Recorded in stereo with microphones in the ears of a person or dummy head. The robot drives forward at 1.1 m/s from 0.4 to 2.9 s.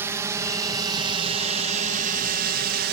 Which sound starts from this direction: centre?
A drone, at 0.0 s.